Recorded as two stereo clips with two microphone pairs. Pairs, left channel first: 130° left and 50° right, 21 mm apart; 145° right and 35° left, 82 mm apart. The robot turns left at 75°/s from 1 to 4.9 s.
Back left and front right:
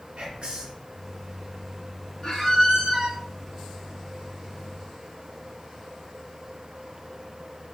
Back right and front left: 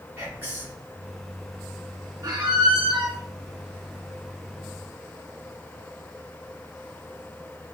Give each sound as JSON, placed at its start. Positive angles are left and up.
{"t": 0.2, "sound": "whispering", "azimuth_deg": -30, "distance_m": 1.6}
{"t": 2.2, "sound": "a squeak", "azimuth_deg": 75, "distance_m": 0.9}